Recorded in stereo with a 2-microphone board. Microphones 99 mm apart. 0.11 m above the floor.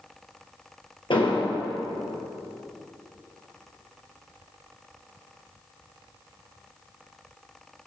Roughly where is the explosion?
Left.